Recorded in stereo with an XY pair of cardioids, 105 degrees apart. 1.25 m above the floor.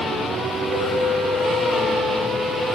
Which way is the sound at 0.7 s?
45° right.